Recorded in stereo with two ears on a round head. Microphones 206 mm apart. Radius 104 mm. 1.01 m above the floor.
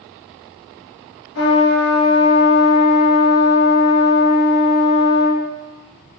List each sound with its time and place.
1.4 s a trumpet: 50° left (ahead or behind), 0.9 m